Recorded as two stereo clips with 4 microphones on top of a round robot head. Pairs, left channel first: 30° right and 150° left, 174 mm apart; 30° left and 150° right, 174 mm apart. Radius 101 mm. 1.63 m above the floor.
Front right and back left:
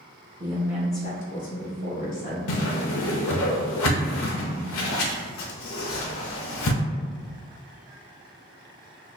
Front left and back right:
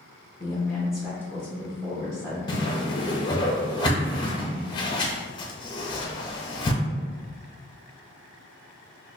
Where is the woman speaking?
100° left, 0.7 m; by 2.4 s 75° right, 2 m.